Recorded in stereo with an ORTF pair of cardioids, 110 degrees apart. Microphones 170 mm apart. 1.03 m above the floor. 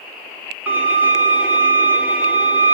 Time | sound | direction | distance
0.7 | a violin | 10° right | 3.5 m